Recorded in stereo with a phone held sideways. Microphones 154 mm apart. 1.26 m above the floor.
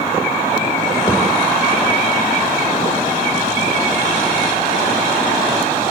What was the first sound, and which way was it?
A thud, 25° left (ahead or behind).